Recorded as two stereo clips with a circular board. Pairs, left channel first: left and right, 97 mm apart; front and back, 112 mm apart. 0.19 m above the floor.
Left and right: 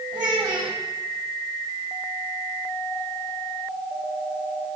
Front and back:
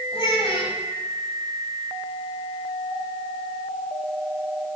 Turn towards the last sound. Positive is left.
turn(degrees=-45)